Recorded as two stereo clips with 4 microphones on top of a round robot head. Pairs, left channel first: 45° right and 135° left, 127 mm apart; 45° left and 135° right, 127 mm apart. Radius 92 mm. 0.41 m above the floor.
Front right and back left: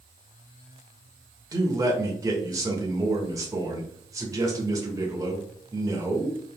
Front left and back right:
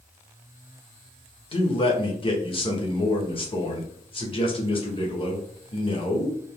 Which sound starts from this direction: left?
A man speaking, at 1.5 s.